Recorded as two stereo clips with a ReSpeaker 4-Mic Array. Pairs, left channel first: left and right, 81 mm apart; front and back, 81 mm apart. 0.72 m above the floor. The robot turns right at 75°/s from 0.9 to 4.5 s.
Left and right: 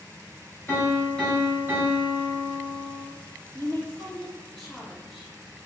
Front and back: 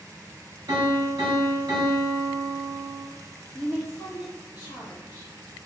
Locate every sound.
0.7 s a piano: 150° left, 1.3 m; by 3.0 s 50° right, 1.3 m
3.5 s a woman speaking: 75° right, 1.8 m; by 5.3 s straight ahead, 1.8 m